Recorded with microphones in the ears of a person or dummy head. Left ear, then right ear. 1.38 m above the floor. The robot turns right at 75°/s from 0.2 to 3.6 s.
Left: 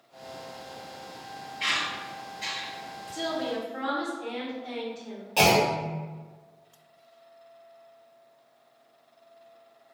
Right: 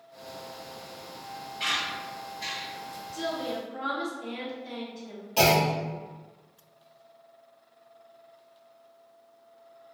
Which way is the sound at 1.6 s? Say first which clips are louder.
Left 1 dB; 45° right (ahead or behind).